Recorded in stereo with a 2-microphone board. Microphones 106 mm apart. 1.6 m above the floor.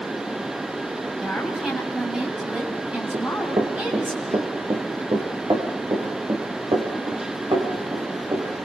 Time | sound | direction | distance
1.2 | a woman speaking | 5° right (ahead or behind) | 8.5 m
3.1 | running footsteps | 50° right (ahead or behind) | 4 m